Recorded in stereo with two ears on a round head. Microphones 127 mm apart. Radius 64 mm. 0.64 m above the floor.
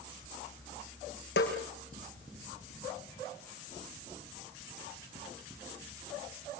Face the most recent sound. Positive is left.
turn(degrees=80)